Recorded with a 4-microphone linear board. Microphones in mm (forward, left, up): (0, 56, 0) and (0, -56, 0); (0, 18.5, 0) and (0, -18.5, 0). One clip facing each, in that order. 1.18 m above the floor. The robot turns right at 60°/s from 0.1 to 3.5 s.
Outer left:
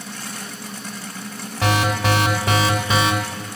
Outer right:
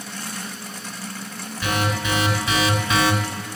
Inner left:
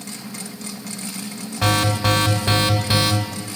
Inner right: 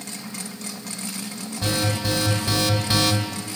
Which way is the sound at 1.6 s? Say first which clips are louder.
Outer left 4 dB, inner left 6 dB; 75° left.